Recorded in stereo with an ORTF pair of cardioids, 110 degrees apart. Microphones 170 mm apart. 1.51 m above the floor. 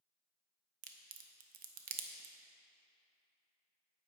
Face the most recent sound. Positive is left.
turn(degrees=-60)